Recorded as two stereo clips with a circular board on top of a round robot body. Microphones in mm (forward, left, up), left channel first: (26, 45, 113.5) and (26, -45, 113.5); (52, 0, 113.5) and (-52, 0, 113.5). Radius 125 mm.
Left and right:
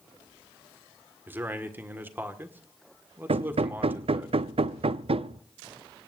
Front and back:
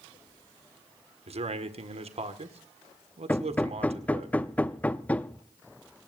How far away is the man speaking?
About 2 m.